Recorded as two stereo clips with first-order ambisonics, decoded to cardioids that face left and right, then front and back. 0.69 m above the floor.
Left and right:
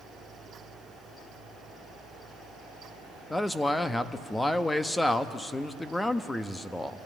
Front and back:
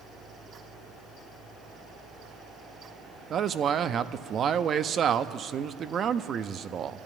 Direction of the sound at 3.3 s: 165° left.